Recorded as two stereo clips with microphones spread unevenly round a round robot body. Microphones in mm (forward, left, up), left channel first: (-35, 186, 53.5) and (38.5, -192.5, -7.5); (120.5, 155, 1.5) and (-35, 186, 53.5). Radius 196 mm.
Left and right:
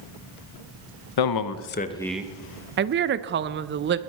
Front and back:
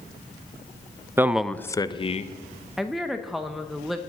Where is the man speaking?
80° left, 0.8 m; by 2.4 s 5° right, 1.0 m.